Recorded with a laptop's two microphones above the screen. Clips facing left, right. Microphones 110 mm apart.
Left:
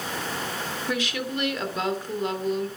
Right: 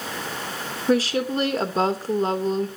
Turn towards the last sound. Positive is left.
turn(degrees=-35)  # may be behind; listen again after turning